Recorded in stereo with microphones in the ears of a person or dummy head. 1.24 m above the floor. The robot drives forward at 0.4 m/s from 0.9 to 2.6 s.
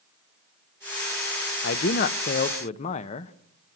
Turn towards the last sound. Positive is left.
turn(degrees=40)  # may be behind; listen again after turning